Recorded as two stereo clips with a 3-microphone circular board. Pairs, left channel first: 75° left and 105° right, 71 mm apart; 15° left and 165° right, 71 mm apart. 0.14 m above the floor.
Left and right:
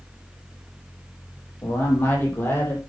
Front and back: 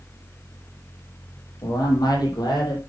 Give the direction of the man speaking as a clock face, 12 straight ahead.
11 o'clock.